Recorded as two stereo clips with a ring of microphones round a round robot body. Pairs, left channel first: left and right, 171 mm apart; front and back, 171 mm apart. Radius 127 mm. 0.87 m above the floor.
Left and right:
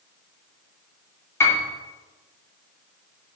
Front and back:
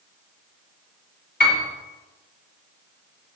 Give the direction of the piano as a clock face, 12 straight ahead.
12 o'clock.